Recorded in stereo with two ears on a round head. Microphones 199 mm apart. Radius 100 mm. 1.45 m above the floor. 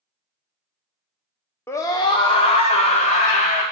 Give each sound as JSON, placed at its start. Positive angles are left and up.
{"t": 1.7, "sound": "a scream", "side_deg": 10, "distance_m": 0.8}